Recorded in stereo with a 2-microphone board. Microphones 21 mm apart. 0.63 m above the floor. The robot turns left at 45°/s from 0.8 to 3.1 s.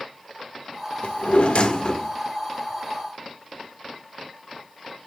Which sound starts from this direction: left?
A drawer, at 1.0 s.